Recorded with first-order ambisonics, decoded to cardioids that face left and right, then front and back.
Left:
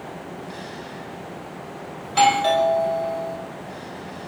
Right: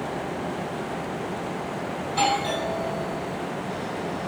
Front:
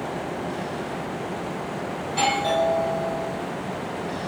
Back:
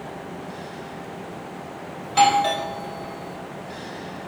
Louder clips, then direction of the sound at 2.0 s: Left 7 dB, back 5 dB; 130° left.